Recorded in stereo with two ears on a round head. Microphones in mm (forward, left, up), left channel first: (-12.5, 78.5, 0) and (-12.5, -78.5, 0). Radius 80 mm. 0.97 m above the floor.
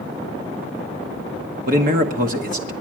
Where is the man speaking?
50° right (ahead or behind), 1.0 m.